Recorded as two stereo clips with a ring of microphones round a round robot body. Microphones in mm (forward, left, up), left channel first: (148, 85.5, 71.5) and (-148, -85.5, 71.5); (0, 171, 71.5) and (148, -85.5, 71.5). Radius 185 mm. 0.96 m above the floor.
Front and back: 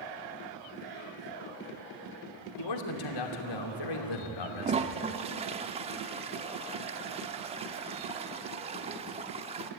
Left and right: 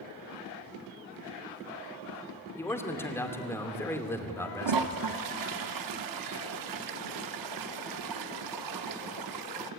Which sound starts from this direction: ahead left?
A man speaking, at 2.6 s.